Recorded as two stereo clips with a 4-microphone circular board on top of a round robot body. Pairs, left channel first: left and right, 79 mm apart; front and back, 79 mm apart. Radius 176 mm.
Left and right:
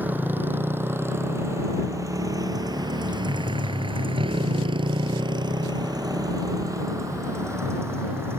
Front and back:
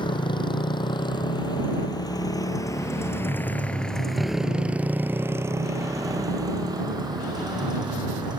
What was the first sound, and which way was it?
A motorcycle, 20° right.